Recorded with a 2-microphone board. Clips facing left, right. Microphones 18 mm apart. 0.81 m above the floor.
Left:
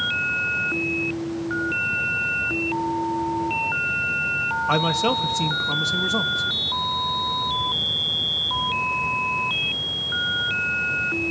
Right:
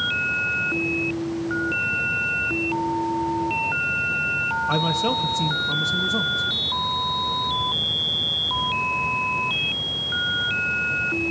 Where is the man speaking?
20° left (ahead or behind), 0.5 m.